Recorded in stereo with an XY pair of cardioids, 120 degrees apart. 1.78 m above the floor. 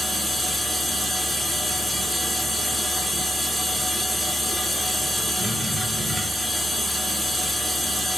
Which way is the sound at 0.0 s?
Straight ahead.